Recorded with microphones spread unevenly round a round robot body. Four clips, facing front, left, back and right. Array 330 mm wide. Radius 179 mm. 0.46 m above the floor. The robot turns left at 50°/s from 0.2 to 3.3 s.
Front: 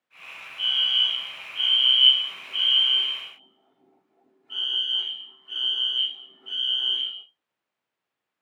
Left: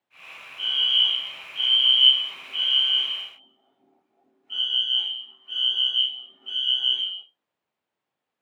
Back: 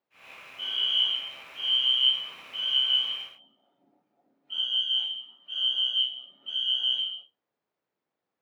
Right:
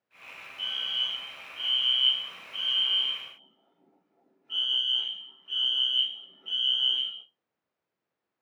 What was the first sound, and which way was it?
A fire alarm, 120° left.